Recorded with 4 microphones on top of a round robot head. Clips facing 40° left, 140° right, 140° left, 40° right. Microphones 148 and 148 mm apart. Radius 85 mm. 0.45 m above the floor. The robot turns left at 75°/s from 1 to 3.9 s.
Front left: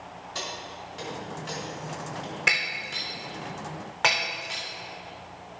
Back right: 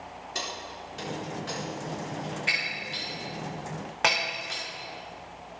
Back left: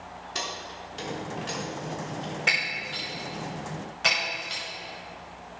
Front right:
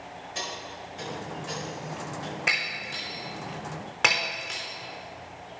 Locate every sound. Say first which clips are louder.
0.3 s keys jangling: even, back left 1 dB; 145° left, 4.5 m; by 2.3 s 45° left, 4.5 m
2.5 s breaking glass: front left 2 dB, back left 1 dB; 40° left, 4 m; by 4.6 s 65° right, 4 m